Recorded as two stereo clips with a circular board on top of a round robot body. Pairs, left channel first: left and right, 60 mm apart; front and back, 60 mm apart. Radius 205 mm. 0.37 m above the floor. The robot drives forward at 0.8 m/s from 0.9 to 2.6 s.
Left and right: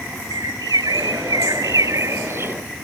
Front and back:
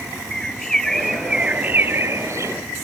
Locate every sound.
0.3 s a bird: 85° right; by 2.5 s 140° right